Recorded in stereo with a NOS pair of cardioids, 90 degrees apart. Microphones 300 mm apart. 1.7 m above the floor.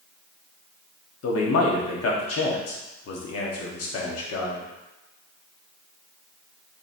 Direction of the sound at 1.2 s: 50° left.